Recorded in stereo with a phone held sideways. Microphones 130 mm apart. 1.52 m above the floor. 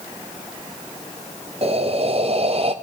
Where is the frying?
No frying in this recording.